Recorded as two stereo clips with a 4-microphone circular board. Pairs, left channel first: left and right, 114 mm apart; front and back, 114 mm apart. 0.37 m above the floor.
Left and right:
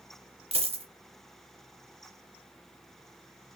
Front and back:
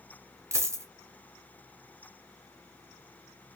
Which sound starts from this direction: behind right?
A dropped coin, at 0.5 s.